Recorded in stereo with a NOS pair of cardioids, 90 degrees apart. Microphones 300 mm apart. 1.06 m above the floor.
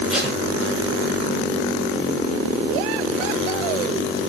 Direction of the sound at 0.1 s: Straight ahead.